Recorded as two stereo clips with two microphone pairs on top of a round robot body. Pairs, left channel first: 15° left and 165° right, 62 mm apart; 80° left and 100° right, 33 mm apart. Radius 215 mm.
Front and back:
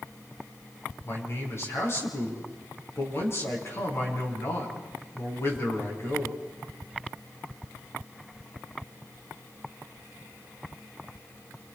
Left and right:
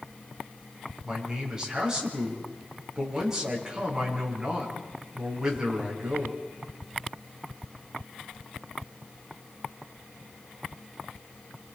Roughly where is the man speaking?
Ahead right.